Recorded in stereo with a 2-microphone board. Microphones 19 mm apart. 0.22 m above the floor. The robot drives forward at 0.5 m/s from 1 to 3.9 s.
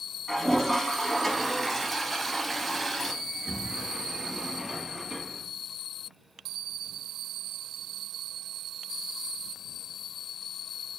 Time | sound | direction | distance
0.3 | a toilet flushing | 10° left (ahead or behind) | 0.9 m
3.2 | a sliding door | 20° right (ahead or behind) | 1.7 m